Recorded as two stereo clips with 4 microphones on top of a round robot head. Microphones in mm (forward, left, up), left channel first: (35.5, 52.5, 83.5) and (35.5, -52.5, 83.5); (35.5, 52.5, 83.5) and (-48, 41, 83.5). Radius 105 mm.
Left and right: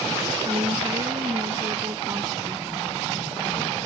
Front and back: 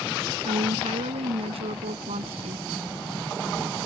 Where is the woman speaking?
155° right; by 2.6 s 150° right.